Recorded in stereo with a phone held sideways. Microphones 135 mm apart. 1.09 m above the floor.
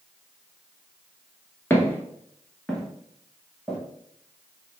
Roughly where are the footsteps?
Centre.